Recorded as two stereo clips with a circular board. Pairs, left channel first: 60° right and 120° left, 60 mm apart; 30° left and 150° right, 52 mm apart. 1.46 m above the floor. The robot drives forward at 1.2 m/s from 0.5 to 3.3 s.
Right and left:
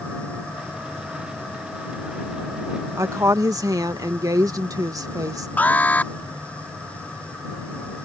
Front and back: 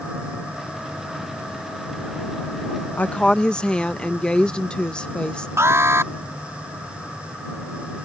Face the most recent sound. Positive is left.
turn(degrees=-125)